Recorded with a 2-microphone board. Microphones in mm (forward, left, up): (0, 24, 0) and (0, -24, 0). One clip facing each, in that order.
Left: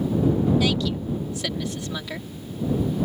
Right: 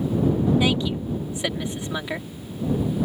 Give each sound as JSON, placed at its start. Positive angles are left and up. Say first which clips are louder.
{"t": 0.6, "sound": "a woman speaking", "louder": "right 1 dB", "side_deg": -20}